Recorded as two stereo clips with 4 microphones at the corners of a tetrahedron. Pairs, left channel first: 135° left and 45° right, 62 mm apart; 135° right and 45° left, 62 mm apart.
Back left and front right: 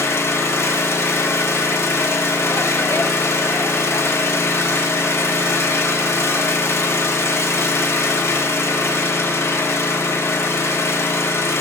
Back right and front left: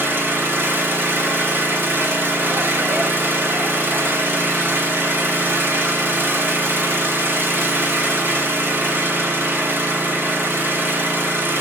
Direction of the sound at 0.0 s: 95° left.